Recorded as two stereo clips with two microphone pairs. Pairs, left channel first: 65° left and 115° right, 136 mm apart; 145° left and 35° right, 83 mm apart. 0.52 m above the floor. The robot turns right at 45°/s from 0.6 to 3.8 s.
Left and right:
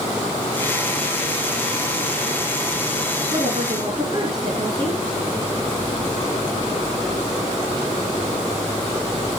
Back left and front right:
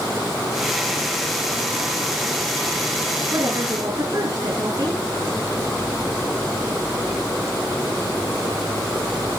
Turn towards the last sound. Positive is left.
turn(degrees=-60)